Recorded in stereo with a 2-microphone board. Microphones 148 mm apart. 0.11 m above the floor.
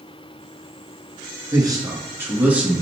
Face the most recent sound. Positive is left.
turn(degrees=-5)  # may be behind; listen again after turning